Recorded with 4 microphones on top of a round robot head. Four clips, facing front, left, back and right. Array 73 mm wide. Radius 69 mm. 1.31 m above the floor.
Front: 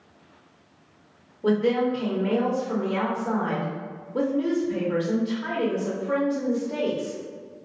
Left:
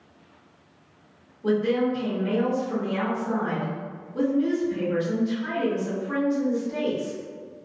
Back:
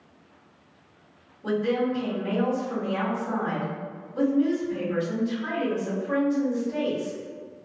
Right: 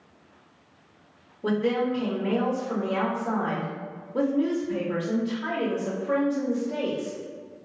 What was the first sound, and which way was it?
A woman speaking, 45° right.